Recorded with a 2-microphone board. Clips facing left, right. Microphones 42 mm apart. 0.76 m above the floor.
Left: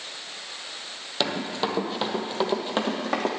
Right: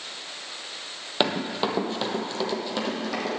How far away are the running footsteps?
About 1.2 m.